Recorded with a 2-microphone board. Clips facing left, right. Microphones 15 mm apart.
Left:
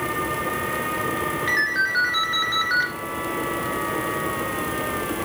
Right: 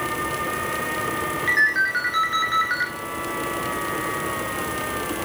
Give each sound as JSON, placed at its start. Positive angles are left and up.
{"t": 1.5, "sound": "a ringtone", "side_deg": -5, "distance_m": 1.4}